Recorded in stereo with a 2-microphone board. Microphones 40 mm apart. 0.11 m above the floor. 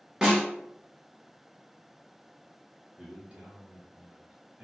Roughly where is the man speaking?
Right.